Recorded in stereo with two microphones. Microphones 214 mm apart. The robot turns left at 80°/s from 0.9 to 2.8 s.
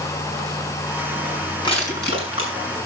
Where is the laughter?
No laughter in this recording.